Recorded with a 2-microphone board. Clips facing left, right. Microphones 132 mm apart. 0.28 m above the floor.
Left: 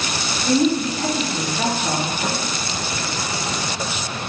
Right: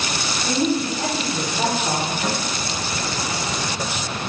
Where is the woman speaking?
15° right (ahead or behind), 1.3 m.